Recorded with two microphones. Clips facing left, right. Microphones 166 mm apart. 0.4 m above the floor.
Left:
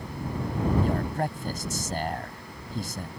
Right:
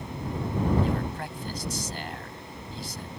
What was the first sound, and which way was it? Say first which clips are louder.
A man speaking: left 2 dB; 50° left (ahead or behind).